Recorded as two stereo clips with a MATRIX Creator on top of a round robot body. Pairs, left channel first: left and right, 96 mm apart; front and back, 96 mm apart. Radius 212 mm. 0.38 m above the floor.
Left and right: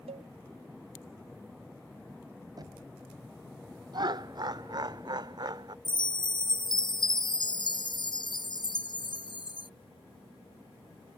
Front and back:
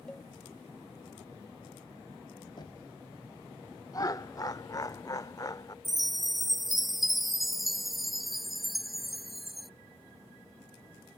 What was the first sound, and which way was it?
A cowbell, 80° right.